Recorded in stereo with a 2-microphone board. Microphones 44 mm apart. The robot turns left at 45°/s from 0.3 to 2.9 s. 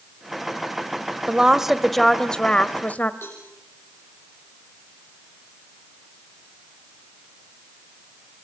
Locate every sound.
1.3 s a woman speaking: 155° right, 1.4 m; by 3.1 s 135° left, 1.4 m
3.2 s a cowbell: 65° left (ahead or behind), 7.5 m